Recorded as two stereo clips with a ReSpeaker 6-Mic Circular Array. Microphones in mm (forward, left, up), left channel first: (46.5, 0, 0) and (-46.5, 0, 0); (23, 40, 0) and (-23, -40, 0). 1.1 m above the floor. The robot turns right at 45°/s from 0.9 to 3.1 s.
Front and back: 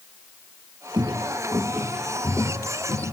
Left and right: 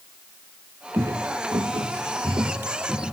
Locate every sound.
0.9 s footsteps: 175° right, 1.5 m; by 3.1 s 30° right, 2.5 m